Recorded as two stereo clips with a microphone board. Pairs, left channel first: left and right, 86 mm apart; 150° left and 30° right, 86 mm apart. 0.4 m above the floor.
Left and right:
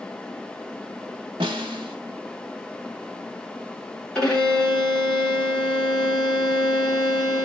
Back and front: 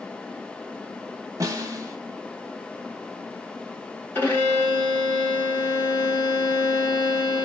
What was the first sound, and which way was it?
A snare drum, 80° right.